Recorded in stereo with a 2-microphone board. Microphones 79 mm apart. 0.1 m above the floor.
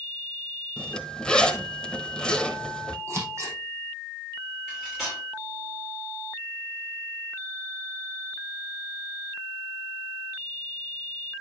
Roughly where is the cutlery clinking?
Centre.